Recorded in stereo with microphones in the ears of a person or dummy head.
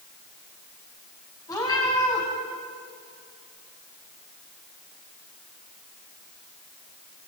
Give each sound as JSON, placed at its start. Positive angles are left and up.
{"t": 1.5, "sound": "a cat meowing", "side_deg": 15, "distance_m": 5.0}